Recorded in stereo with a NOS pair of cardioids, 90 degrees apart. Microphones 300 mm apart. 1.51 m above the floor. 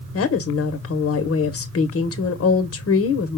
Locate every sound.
0.1 s a woman speaking: 50° left, 1.0 m